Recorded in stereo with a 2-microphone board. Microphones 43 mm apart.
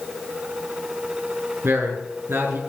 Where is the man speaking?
80° right, 5.5 m.